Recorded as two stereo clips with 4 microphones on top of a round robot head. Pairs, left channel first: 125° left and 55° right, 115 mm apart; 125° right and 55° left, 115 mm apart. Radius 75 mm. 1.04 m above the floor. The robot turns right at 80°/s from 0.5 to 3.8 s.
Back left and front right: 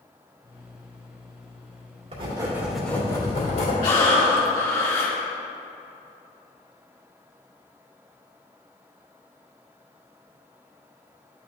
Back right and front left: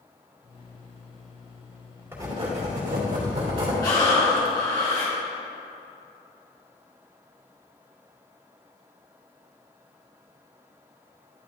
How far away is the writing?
About 2 m.